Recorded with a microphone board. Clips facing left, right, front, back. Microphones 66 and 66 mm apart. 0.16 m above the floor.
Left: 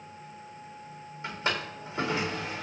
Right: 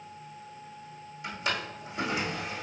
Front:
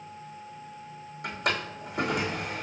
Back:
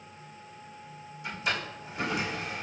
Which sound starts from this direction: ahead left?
A drawer, at 1.2 s.